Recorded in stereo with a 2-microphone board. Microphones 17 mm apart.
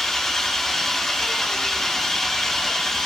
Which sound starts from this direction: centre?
An engine running, at 0.0 s.